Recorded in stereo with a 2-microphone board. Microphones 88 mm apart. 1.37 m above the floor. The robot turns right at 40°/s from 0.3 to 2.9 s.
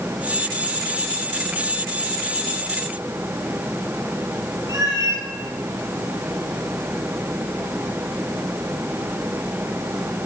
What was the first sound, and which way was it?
A cat meowing, 40° right (ahead or behind).